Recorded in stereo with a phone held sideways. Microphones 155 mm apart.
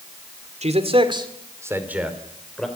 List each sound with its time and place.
0.6 s a man speaking: 45° right (ahead or behind), 2.5 m; by 2.7 s 5° left (ahead or behind), 3 m